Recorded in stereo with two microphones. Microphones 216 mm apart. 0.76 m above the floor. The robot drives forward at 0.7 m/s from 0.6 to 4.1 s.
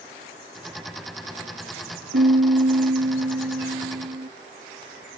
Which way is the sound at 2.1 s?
55° right (ahead or behind).